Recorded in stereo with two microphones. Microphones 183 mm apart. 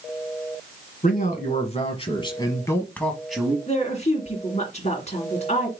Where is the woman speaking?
35° left (ahead or behind), 2.5 m.